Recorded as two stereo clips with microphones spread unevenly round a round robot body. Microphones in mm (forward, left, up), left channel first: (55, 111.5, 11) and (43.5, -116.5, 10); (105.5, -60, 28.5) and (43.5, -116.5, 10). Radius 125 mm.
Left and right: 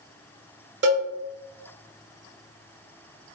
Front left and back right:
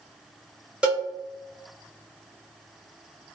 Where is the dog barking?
No dog barking in this recording.